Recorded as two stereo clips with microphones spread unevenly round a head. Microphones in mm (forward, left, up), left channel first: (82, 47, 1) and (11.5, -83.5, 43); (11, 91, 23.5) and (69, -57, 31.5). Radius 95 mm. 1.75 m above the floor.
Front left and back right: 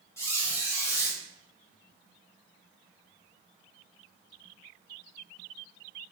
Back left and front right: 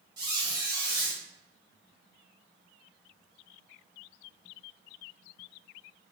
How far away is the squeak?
About 1.0 m.